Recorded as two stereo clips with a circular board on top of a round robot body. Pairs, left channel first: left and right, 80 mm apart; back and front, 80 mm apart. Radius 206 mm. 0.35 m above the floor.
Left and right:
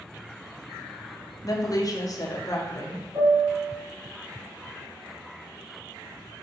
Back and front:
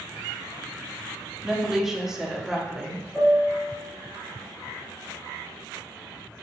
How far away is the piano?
About 1.9 m.